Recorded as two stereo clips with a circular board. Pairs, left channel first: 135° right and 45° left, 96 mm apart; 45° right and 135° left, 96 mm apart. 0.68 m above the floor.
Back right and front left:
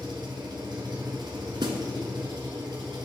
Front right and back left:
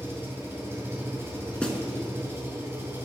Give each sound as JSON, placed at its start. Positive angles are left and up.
{"t": 0.0, "sound": "an engine running", "azimuth_deg": 75, "distance_m": 2.5}
{"t": 1.6, "sound": "a snare drum", "azimuth_deg": 35, "distance_m": 1.1}